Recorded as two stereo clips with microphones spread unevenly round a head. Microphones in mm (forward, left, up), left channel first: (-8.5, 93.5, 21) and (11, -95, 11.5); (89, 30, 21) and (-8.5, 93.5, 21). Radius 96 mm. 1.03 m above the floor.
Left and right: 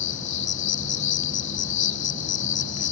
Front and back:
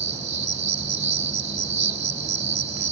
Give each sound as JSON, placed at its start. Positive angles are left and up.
{"t": 0.0, "sound": "an insect", "azimuth_deg": 125}